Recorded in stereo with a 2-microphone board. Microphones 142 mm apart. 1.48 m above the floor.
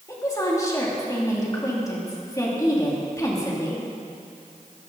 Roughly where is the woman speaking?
Left.